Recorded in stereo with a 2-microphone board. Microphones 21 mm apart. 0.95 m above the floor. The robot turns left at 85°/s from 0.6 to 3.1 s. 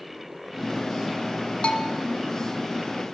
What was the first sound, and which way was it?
A bell, 65° left (ahead or behind).